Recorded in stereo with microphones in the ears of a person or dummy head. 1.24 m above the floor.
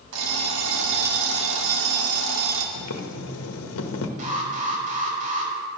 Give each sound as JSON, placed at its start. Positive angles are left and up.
{"t": 0.1, "sound": "an alarm clock", "side_deg": -80, "distance_m": 1.9}
{"t": 2.8, "sound": "boiling", "side_deg": 85, "distance_m": 1.2}
{"t": 4.2, "sound": "an alarm", "side_deg": -45, "distance_m": 3.5}